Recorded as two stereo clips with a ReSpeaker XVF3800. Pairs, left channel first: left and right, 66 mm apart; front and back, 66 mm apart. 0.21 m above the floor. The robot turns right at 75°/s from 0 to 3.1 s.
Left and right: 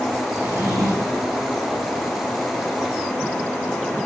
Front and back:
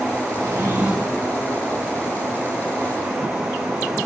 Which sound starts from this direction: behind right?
A drawer, at 0.3 s.